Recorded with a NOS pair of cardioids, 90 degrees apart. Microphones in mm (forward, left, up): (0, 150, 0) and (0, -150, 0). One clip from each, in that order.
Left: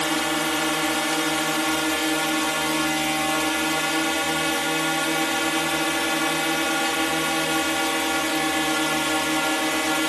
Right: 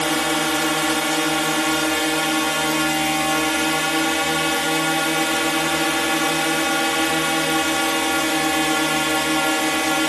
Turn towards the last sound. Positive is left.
turn(degrees=-30)